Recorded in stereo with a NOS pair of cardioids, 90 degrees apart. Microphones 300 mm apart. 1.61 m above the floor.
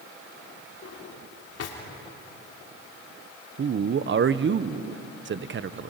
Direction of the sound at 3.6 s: 40° right.